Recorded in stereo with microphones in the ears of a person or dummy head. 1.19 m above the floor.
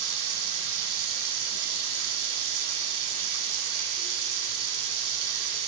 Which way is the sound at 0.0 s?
85° right.